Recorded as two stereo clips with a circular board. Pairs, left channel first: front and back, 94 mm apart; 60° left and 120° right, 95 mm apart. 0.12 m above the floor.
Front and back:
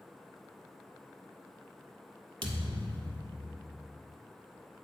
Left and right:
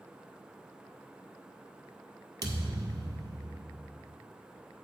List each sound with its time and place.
2.4 s a thud: 165° right, 1.4 m